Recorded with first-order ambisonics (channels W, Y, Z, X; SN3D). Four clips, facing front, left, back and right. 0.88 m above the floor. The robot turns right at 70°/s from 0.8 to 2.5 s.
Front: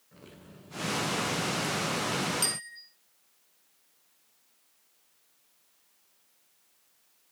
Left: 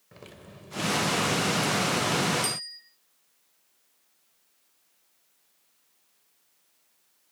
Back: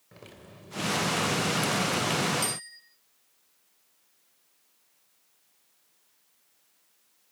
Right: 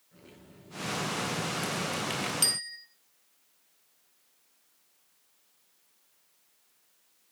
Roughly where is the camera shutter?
I don't hear a camera shutter.